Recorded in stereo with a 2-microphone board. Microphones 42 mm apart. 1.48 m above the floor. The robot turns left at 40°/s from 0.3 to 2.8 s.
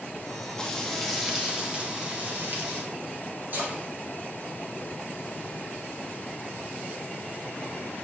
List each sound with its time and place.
0.6 s frying: 20° left, 1.7 m; by 2.8 s 65° right, 1.7 m
3.5 s a splash: 50° right (ahead or behind), 4 m